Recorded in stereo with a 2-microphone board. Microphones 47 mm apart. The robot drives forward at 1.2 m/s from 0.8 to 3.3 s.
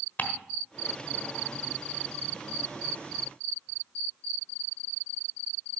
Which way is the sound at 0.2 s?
40° left (ahead or behind).